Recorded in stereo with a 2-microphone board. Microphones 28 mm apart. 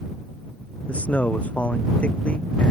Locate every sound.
0.9 s a man speaking: 50° left (ahead or behind)